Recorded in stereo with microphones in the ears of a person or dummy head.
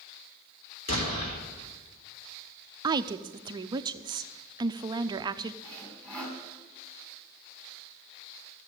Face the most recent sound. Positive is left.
turn(degrees=5)  # may be behind; listen again after turning